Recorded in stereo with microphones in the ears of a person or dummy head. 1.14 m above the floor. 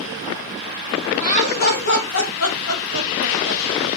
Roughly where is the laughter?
Left.